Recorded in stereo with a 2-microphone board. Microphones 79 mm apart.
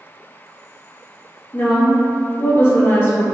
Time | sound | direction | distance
1.5 | a woman speaking | 35° left (ahead or behind) | 1.5 m